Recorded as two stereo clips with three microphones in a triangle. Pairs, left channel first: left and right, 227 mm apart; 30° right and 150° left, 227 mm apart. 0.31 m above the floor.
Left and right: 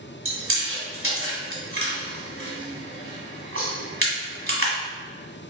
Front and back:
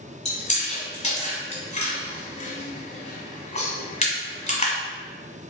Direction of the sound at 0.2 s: 90° right.